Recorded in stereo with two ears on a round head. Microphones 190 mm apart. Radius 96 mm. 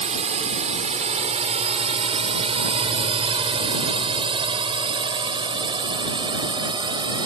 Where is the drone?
35° right (ahead or behind); by 7.3 s 20° right (ahead or behind).